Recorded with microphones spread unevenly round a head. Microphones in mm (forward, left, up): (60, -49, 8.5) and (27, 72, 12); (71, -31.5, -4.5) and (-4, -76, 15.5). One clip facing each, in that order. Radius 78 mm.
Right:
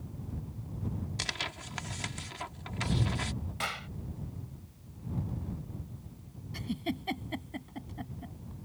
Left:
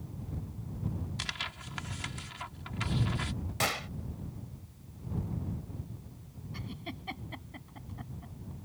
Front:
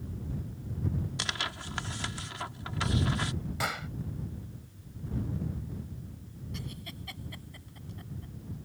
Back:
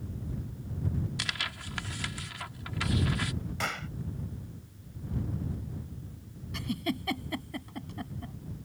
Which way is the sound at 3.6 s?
125° left.